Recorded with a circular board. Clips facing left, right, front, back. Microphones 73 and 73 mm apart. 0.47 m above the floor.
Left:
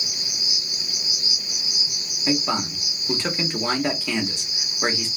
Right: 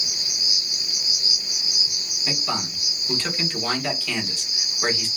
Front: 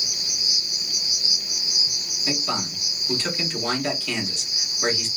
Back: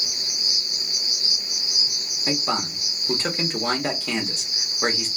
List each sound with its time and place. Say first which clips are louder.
0.0 s an insect: even, even; 155° left, 1.4 m
2.3 s a man speaking: left 5 dB, back 2 dB; 150° left, 1.0 m